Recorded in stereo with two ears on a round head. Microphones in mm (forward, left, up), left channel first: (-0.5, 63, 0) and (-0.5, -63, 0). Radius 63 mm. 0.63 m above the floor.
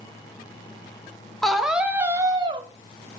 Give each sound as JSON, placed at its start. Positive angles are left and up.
{"t": 1.4, "sound": "a scream", "side_deg": 0, "distance_m": 0.9}